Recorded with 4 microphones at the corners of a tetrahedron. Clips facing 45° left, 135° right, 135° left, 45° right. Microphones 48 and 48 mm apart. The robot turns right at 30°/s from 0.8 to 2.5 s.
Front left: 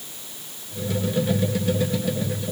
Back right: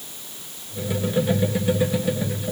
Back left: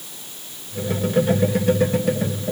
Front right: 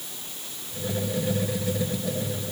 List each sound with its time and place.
Only background noise.